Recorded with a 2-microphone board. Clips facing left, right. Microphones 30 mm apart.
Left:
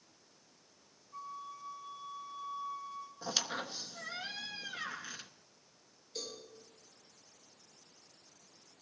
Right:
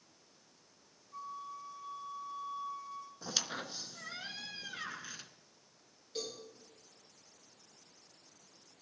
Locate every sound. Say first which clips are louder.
1.1 s a flute: right 1 dB; 10° right (ahead or behind), 2 m
3.2 s a squeak: left 2 dB; 10° left (ahead or behind), 0.7 m
6.2 s a cowbell: right 2 dB; 35° right (ahead or behind), 9 m